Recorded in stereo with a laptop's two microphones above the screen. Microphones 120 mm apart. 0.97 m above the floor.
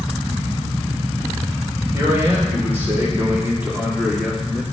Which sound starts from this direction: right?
A man speaking, at 1.9 s.